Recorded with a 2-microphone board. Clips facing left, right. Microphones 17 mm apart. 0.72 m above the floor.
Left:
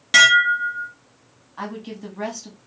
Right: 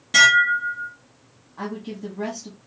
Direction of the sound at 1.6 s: 25° left (ahead or behind).